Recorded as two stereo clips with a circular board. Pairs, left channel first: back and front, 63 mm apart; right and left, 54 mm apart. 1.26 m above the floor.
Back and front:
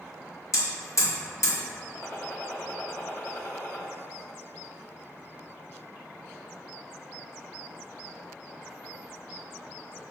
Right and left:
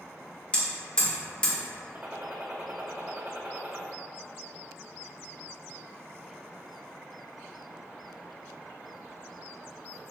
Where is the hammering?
160° right, 1.4 m.